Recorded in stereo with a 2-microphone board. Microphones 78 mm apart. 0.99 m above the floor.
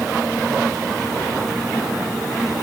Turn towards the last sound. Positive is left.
No sound to turn to.